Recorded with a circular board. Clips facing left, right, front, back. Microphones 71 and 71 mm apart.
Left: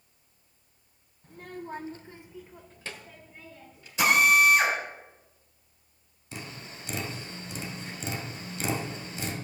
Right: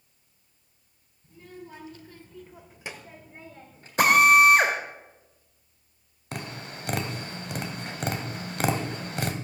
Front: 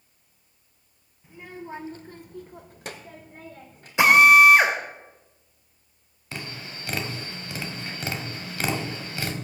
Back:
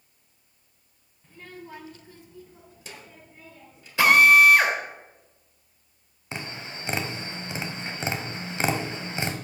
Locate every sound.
1.2 s a child speaking: 80° left, 1.2 m; by 3.9 s 40° right, 1.9 m
4.0 s a drill: 65° right, 2.5 m
6.3 s tapping: 115° right, 1.6 m